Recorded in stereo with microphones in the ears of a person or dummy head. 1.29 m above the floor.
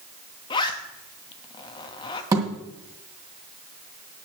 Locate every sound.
0.5 s a zipper: 25° left (ahead or behind), 1.1 m
2.3 s a thud: 15° right (ahead or behind), 1.8 m